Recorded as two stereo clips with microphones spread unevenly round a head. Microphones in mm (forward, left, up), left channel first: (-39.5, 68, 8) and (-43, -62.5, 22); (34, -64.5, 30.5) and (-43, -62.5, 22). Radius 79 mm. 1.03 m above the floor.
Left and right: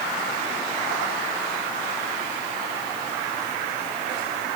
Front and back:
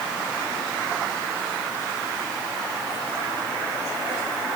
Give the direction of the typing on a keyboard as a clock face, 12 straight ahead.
I don't hear typing on a keyboard.